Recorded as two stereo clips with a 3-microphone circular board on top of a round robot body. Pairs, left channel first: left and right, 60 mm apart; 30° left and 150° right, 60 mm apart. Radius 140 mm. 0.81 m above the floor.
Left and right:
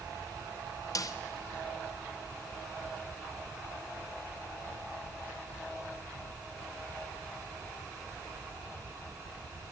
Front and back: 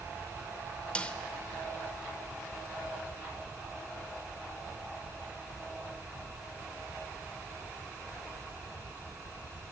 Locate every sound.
0.9 s a snare drum: 100° left, 0.6 m